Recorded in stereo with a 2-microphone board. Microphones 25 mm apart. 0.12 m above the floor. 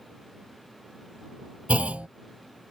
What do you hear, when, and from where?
1.7 s a clunk: 55° right (ahead or behind)